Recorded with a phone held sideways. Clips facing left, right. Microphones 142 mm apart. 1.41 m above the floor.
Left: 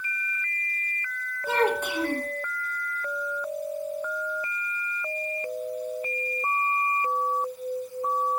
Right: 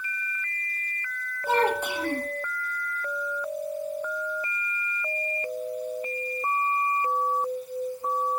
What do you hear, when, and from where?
1.5 s a child speaking: 10° right (ahead or behind), 1.7 m